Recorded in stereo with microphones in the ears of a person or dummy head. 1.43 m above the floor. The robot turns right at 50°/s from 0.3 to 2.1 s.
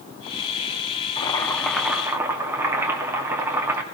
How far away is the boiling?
About 1.9 m.